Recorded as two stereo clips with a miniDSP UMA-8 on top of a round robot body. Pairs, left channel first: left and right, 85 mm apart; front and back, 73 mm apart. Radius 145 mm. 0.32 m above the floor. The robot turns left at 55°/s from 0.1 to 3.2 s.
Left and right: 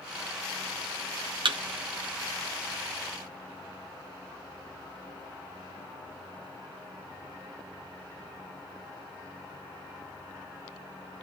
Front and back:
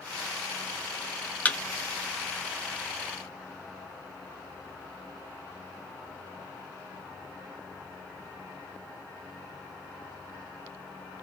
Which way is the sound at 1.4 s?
70° right.